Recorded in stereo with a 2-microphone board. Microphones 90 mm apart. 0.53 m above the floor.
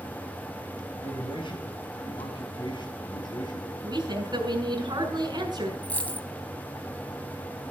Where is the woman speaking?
50° right (ahead or behind), 6 m.